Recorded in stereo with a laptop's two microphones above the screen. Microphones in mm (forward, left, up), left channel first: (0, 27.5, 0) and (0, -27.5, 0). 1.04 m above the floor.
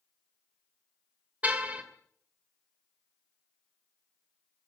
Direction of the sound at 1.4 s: 25° right (ahead or behind).